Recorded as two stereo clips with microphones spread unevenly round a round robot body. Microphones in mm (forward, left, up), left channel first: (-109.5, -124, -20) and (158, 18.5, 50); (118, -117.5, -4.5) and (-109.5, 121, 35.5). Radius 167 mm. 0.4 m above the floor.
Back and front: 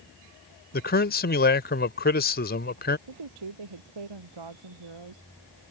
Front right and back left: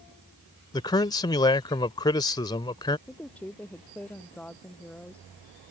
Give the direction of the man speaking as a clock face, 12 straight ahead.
4 o'clock.